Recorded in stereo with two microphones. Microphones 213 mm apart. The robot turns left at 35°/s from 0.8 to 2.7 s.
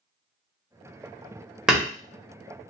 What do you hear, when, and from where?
1.7 s hammering: 5° right (ahead or behind), 1.1 m